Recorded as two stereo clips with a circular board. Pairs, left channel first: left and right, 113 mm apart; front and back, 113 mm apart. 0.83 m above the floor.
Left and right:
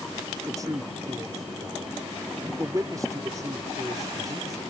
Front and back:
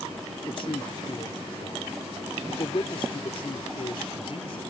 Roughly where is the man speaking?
Ahead right.